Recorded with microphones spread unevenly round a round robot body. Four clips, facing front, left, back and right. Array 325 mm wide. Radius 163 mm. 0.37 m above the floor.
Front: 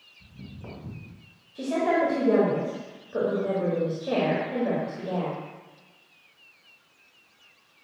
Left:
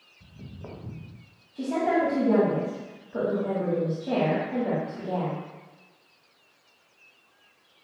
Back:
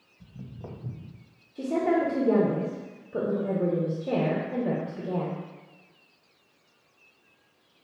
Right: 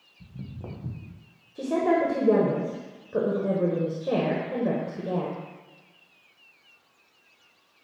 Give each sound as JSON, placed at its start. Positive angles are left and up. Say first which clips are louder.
{"t": 0.2, "sound": "footsteps", "louder": "right 3 dB, back 1 dB", "azimuth_deg": -110, "distance_m": 1.9}
{"t": 1.6, "sound": "a woman speaking", "louder": "right 1 dB, front 1 dB", "azimuth_deg": -120, "distance_m": 1.4}